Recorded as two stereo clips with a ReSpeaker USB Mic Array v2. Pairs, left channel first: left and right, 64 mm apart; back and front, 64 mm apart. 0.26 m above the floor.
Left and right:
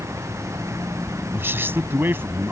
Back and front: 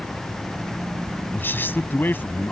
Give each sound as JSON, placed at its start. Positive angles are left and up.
{"t": 1.3, "sound": "a man speaking", "azimuth_deg": -135}